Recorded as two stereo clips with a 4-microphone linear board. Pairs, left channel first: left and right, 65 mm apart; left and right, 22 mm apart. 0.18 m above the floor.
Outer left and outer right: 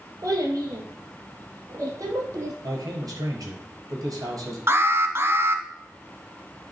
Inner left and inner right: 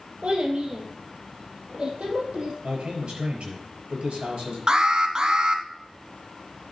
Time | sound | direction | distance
0.2 | a child speaking | 55° right (ahead or behind) | 2.5 m
2.6 | a man speaking | 60° right (ahead or behind) | 4 m
4.7 | an alarm | 40° right (ahead or behind) | 0.8 m